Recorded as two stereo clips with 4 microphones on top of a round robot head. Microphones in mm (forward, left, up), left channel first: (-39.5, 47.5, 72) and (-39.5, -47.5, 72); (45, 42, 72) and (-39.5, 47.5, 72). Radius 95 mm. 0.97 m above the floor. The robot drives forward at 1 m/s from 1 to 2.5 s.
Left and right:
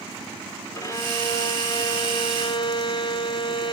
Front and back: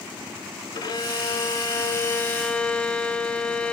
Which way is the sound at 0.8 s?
30° left.